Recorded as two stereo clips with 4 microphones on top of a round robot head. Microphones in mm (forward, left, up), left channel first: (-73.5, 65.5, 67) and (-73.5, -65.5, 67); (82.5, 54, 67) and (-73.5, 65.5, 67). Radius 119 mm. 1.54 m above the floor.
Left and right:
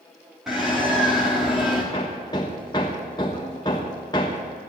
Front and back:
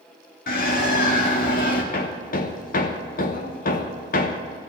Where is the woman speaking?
I don't hear a woman speaking.